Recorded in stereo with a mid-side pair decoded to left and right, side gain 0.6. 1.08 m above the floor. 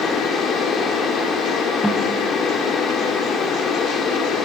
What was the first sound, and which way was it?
A fan, 50° left.